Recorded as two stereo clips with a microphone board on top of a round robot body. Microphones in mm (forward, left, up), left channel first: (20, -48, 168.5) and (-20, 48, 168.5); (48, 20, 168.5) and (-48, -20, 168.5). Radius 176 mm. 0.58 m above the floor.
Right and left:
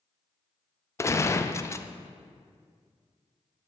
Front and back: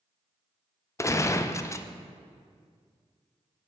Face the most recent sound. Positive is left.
turn(degrees=-20)